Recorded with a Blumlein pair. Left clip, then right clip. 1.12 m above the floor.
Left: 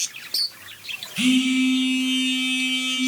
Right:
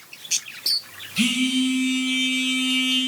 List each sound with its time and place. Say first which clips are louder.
1.2 s a phone buzzing: left 1 dB; 10° right, 2.5 m